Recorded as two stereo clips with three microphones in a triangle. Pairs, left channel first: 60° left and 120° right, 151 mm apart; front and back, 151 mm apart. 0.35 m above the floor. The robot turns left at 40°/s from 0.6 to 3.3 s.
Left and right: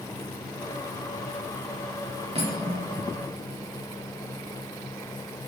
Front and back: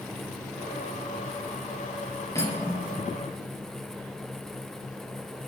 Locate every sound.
2.4 s cutlery clinking: 70° right, 4 m; by 2.9 s 90° right, 4 m